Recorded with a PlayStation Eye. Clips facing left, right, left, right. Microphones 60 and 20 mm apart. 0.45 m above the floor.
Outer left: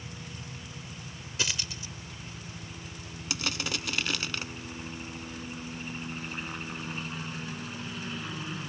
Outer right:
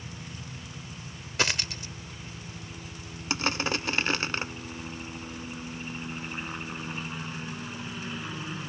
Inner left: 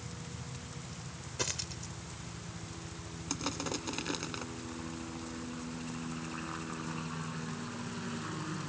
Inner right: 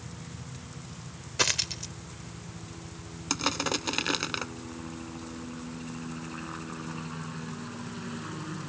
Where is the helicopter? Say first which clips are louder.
Outer right 1 dB, inner right 2 dB; 15° right (ahead or behind); by 8.7 s 5° right (ahead or behind).